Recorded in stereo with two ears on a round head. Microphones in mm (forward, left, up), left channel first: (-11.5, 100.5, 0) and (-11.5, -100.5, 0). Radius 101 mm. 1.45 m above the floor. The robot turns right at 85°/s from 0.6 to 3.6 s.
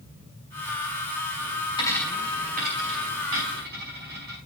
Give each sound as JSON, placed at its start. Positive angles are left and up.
{"t": 1.8, "sound": "a dropped coin", "side_deg": 25, "distance_m": 5.0}